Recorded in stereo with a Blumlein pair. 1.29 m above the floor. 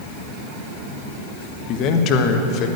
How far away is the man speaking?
About 1.5 m.